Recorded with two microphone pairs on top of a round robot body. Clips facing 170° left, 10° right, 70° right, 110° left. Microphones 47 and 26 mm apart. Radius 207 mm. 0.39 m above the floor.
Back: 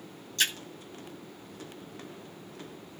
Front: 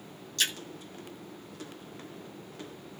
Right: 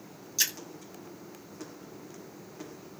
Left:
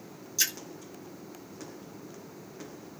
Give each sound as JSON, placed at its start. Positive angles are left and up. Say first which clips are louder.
{"t": 0.4, "sound": "a splash", "louder": "back 2 dB, even", "azimuth_deg": -135, "distance_m": 1.9}